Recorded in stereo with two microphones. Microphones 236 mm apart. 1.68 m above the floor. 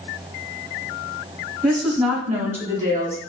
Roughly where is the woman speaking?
Centre.